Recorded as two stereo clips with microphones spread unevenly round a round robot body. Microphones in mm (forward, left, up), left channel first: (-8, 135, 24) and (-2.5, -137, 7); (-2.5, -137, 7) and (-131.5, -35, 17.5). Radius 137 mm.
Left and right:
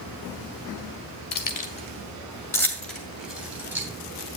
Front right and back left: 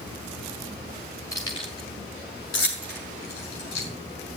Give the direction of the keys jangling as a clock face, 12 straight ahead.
11 o'clock.